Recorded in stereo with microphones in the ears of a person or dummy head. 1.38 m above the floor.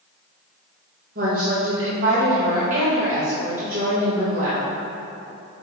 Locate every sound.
1.1 s a woman speaking: 45° right (ahead or behind), 1.7 m